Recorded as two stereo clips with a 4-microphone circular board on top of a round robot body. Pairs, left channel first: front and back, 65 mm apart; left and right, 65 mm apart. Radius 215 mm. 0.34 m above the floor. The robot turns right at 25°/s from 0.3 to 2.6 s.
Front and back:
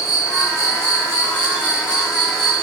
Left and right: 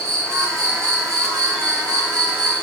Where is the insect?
145° right, 4 m; by 2.6 s 90° right, 4 m.